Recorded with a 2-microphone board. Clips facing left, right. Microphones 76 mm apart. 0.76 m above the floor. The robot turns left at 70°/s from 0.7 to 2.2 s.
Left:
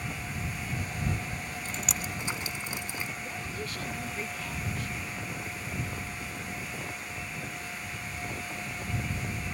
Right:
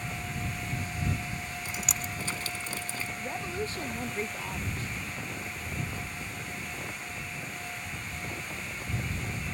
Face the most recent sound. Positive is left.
turn(degrees=-30)  # may be behind; listen again after turning